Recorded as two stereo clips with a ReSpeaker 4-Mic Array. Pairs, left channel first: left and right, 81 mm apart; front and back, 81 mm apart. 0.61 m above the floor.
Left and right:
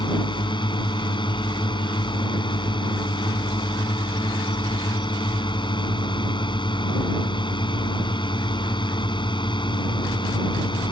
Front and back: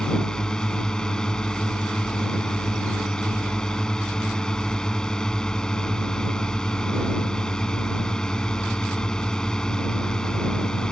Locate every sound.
0.0 s a drone: 80° left